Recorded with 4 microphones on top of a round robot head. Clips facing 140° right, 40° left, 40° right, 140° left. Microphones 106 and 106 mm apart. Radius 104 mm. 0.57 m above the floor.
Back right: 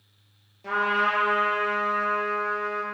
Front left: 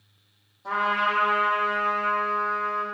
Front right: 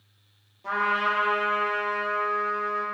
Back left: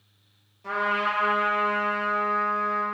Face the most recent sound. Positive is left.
turn(degrees=-125)